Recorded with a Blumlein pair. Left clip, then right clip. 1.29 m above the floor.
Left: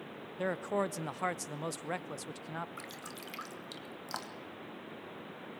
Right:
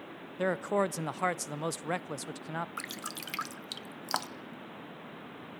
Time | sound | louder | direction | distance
0.4 | a man speaking | right 4 dB | 15° right | 0.5 m
2.8 | dripping | right 5 dB | 65° right | 0.8 m